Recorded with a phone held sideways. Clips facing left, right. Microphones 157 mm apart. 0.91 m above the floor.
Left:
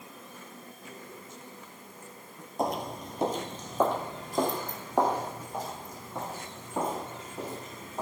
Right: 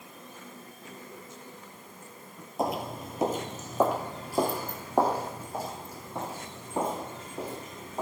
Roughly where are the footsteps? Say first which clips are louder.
Even; centre.